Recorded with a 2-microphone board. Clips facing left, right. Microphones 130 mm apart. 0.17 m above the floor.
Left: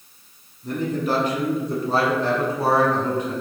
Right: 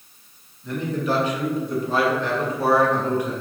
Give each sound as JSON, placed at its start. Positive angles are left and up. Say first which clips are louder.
{"t": 0.6, "sound": "a man speaking", "louder": "left 1 dB", "side_deg": 40, "distance_m": 1.5}